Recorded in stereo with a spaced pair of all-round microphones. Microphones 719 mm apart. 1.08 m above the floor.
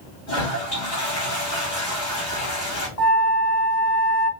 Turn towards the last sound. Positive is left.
turn(degrees=50)  # may be behind; listen again after turning